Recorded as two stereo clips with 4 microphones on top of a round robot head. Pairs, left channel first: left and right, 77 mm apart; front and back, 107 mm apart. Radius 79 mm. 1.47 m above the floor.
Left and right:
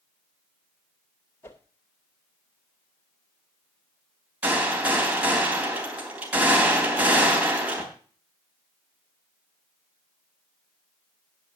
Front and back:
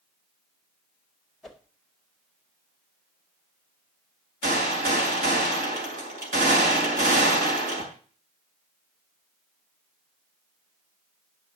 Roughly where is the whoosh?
Left.